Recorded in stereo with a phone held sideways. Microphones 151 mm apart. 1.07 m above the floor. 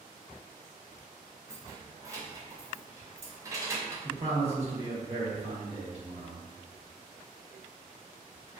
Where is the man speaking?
45° right (ahead or behind), 1.1 m.